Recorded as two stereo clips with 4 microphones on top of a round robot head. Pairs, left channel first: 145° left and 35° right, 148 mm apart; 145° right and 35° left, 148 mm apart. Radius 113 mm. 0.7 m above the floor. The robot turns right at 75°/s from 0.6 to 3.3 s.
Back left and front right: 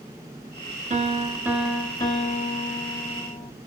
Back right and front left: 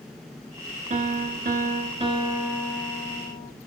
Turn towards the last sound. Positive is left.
turn(degrees=180)